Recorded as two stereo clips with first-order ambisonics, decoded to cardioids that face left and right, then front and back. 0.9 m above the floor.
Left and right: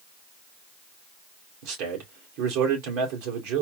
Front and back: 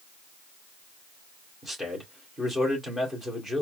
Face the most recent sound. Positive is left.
turn(degrees=-95)